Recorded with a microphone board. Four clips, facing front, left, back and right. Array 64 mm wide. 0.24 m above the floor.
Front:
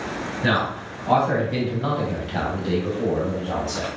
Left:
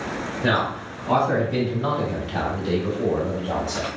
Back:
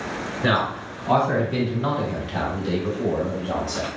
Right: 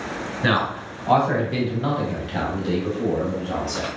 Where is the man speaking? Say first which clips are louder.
Right 1 dB, back 1 dB; 90° right, 1.9 m; by 3.9 s 55° left, 1.7 m.